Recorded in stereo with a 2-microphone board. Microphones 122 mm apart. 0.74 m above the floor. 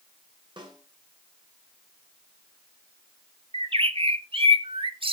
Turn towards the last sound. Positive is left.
turn(degrees=-50)  # may be behind; listen again after turning